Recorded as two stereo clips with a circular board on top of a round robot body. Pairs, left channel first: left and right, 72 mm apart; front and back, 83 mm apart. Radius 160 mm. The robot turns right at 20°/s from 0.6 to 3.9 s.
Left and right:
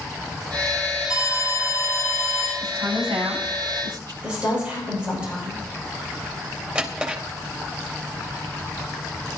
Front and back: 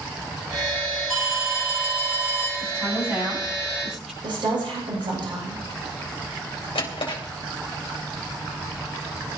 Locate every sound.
1.1 s an alarm: 90° left, 4.5 m; by 2.5 s 115° left, 4.5 m
2.6 s a woman speaking: 125° right, 8.5 m; by 4.1 s 100° right, 8.5 m
4.2 s a woman speaking: 165° right, 10 m
6.8 s a drawer: 20° right, 3 m